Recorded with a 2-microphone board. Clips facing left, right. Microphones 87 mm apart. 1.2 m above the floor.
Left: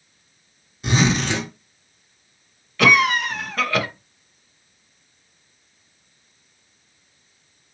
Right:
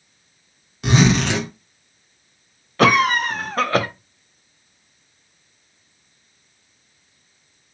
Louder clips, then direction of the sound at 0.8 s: Right 3 dB; 80° right.